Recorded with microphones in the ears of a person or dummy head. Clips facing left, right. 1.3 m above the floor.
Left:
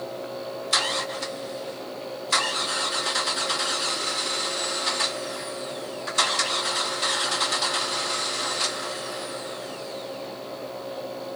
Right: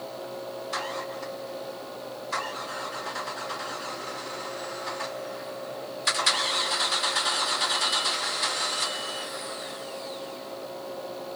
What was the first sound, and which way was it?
Only background noise.